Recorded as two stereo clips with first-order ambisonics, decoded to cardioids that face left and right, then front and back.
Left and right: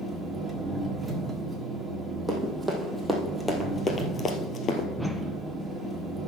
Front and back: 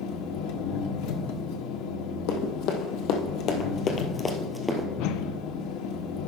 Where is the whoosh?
5° left, 0.6 m.